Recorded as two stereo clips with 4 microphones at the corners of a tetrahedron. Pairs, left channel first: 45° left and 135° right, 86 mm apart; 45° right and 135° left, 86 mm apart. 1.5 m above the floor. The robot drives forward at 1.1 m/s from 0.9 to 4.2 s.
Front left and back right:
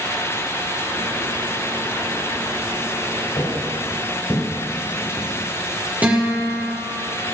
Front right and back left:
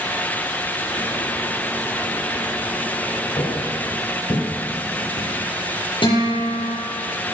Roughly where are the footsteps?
Ahead.